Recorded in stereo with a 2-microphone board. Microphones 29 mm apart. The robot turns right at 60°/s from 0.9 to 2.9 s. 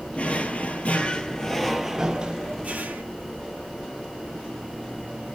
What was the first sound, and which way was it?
A drawer, 130° left.